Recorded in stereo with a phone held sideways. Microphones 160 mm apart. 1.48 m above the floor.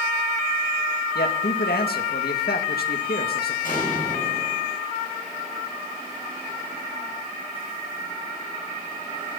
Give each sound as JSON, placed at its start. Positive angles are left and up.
{"t": 1.1, "sound": "a man speaking", "side_deg": 75, "distance_m": 1.8}
{"t": 3.6, "sound": "an explosion", "side_deg": 60, "distance_m": 7.5}